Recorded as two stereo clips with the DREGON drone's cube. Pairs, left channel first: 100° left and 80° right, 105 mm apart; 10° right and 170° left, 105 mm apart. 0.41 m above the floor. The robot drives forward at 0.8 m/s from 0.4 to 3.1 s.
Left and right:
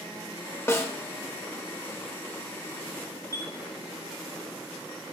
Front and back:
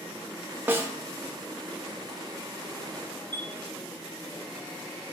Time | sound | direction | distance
0.7 | a snare drum | 125° left | 0.9 m
3.3 | a chime | 50° left | 1.3 m